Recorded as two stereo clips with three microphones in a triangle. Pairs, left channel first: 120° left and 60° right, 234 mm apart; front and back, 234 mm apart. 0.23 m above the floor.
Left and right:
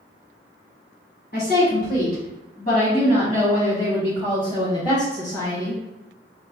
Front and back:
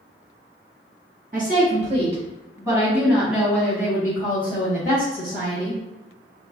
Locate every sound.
1.3 s a woman speaking: 145° left, 1.7 m; by 5.8 s 40° left, 2.0 m